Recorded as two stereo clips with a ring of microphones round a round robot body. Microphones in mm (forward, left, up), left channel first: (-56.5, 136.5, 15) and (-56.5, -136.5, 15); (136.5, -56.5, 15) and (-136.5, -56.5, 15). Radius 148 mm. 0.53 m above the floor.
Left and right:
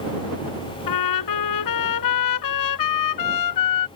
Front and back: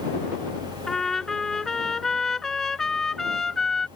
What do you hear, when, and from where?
0.9 s a trumpet: 90° left